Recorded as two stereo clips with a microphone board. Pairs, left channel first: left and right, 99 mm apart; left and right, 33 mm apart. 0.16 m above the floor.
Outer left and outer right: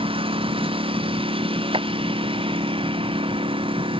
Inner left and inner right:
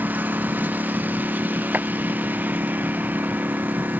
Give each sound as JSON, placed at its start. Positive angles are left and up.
{"t": 0.0, "sound": "a lawn mower", "side_deg": -65}
{"t": 1.7, "sound": "a clap", "side_deg": -65}